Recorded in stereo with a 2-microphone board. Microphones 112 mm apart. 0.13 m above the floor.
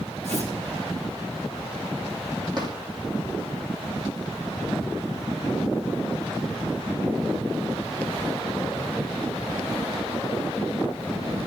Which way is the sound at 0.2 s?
75° right (ahead or behind).